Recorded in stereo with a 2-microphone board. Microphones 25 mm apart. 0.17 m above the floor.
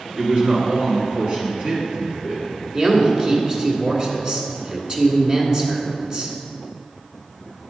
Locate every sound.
0.2 s a man speaking: 30° right (ahead or behind), 1.3 m
2.7 s a man speaking: 30° right (ahead or behind), 1.5 m